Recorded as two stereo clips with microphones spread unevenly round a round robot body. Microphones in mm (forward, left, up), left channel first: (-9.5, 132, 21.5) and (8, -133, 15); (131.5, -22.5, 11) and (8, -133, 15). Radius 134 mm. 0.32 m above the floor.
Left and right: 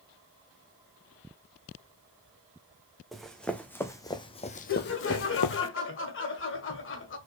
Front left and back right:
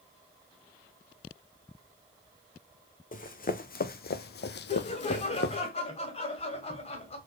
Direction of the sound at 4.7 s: 80° left.